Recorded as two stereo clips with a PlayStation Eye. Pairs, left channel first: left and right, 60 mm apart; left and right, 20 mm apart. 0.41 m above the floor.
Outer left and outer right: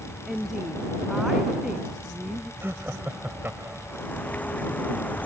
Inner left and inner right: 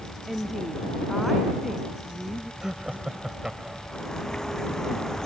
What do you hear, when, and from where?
0.3 s a woman speaking: 5° right (ahead or behind); by 2.5 s 10° right (ahead or behind)
2.6 s laughter: 40° right (ahead or behind)
3.9 s a bird: 25° left (ahead or behind)